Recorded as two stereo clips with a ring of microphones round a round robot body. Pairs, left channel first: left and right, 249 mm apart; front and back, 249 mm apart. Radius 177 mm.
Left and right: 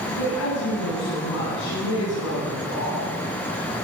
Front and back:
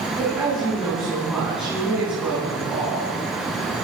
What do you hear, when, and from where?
0.1 s a woman speaking: 95° left, 9 m